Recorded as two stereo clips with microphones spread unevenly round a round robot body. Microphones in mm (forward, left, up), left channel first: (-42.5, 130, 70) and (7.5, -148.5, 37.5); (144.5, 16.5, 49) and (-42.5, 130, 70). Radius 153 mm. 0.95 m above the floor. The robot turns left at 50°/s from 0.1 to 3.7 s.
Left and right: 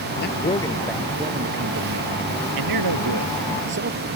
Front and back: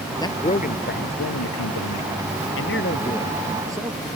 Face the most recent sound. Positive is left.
turn(degrees=-130)